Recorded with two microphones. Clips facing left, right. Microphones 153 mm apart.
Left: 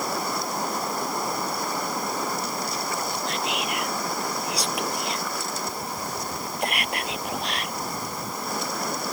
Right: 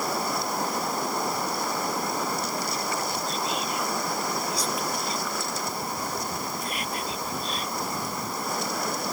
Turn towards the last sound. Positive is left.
turn(degrees=75)  # may be behind; listen again after turning